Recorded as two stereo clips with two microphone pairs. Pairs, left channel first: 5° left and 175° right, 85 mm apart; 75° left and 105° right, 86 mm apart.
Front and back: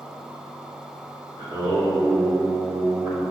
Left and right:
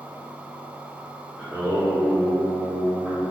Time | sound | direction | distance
1.4 | singing | 170° right | 1.1 m